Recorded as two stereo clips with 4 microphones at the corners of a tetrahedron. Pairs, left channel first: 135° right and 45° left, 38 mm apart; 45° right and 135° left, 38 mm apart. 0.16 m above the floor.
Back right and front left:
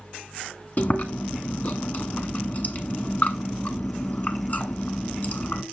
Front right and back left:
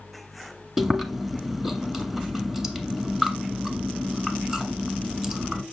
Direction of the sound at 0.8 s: 150° right.